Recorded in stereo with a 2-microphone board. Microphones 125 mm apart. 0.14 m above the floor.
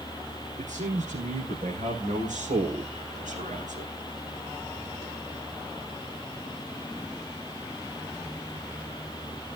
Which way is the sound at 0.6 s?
75° right (ahead or behind).